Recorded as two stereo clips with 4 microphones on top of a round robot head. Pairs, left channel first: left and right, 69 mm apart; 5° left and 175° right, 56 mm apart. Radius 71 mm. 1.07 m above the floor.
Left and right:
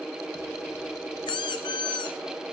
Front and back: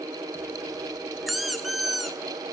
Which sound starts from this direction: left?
A squeak, at 1.3 s.